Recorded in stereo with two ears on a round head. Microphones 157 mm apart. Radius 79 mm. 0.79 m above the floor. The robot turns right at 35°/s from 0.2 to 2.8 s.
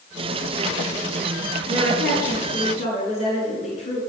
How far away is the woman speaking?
About 7 m.